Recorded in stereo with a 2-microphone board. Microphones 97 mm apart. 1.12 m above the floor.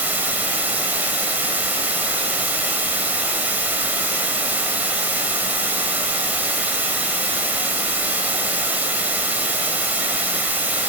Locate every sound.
0.0 s running water: 15° right (ahead or behind), 3.5 m